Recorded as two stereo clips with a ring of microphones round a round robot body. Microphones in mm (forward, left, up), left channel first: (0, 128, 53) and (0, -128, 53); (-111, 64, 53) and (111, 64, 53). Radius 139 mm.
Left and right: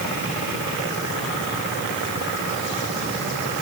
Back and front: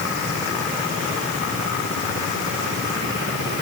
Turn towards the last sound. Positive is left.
No sound to turn to.